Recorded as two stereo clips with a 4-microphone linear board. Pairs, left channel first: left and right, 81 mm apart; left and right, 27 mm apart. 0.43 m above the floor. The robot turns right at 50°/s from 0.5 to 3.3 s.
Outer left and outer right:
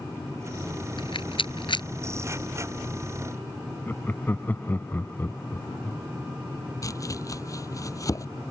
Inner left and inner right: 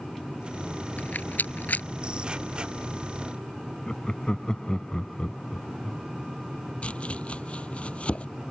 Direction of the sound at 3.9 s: 25° left (ahead or behind).